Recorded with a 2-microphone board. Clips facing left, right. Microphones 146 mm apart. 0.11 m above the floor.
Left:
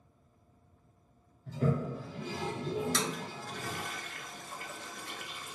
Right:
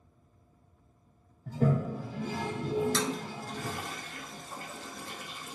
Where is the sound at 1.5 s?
50° right (ahead or behind), 0.8 m.